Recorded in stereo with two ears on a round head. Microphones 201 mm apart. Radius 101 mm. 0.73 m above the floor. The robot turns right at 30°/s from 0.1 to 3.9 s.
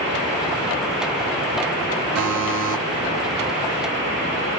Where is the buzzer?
75° right (ahead or behind), 1.5 m.